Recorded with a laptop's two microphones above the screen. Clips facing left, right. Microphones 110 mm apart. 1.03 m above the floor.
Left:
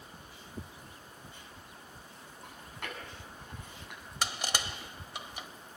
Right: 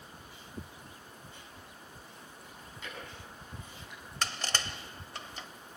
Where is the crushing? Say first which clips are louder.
Left 1 dB; 15° left (ahead or behind), 0.9 m.